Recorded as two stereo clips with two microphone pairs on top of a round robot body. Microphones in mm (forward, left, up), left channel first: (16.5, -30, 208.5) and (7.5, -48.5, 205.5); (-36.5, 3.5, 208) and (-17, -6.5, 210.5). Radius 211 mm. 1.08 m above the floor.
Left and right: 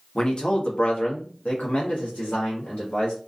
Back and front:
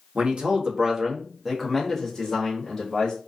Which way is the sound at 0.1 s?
5° left.